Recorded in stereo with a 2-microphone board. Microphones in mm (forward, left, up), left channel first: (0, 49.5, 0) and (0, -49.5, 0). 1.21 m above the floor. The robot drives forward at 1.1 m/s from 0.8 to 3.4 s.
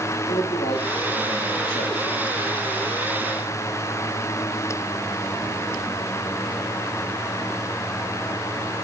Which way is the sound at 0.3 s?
75° left (ahead or behind).